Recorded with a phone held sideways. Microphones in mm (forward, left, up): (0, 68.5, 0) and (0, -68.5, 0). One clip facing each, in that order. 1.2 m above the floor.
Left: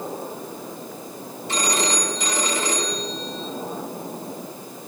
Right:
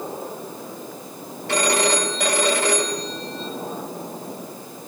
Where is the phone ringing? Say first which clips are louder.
Right 4 dB; 85° right, 4.5 m.